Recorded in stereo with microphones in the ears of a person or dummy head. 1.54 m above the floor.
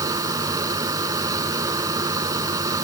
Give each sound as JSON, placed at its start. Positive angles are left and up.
{"t": 0.0, "sound": "a fan", "side_deg": -15}